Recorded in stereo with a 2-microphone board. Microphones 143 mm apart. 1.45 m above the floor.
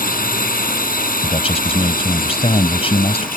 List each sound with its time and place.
0.0 s a drone: 90° left
1.2 s a man speaking: 40° left (ahead or behind)